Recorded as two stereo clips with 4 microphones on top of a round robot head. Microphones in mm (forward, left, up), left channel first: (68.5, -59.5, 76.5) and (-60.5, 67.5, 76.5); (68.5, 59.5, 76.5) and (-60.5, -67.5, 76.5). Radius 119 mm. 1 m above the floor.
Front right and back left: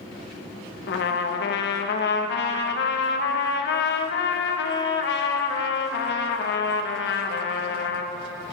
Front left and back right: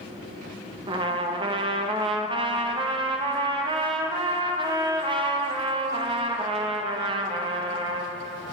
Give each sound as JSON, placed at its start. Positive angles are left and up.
{"t": 0.9, "sound": "a trumpet", "azimuth_deg": -70, "distance_m": 0.6}